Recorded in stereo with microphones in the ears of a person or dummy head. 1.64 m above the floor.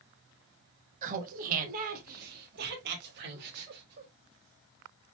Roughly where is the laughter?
Right.